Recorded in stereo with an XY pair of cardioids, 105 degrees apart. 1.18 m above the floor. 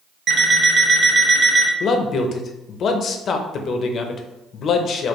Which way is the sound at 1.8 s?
55° left.